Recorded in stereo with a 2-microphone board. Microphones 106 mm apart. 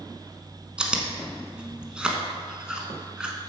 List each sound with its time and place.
0.8 s chewing: 10° right (ahead or behind), 1.2 m